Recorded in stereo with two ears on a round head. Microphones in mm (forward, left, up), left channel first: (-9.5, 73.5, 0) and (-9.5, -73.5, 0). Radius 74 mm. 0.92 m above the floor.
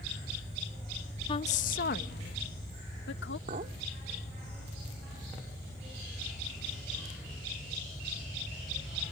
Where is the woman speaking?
30° left (ahead or behind); by 3.4 s 75° left (ahead or behind).